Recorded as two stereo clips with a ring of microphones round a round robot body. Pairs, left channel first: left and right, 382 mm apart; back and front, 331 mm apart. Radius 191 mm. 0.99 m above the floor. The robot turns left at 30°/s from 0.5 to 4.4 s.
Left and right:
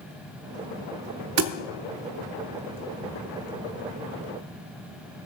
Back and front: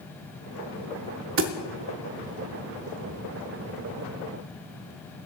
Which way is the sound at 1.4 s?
45° right.